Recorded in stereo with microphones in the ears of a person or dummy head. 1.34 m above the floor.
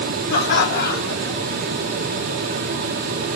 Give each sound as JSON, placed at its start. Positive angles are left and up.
{"t": 0.3, "sound": "laughter", "side_deg": 55, "distance_m": 3.0}